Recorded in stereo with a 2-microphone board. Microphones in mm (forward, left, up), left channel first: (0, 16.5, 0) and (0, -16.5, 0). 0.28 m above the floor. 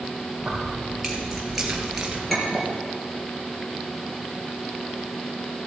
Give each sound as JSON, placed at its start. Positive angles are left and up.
{"t": 0.4, "sound": "keys jangling", "side_deg": 0, "distance_m": 4.5}
{"t": 2.3, "sound": "a clink", "side_deg": 0, "distance_m": 4.0}